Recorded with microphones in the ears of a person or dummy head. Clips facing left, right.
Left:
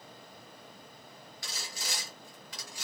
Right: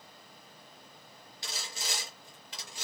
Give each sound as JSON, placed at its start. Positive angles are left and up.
{"t": 1.4, "sound": "sawing", "side_deg": -25, "distance_m": 1.1}